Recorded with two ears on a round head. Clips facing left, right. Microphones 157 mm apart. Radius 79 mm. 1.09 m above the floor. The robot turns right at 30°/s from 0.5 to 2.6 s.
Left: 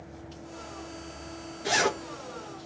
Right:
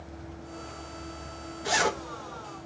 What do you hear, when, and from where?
1.6 s a zipper: 25° left (ahead or behind), 2.5 m; by 2.0 s 35° left (ahead or behind), 2.5 m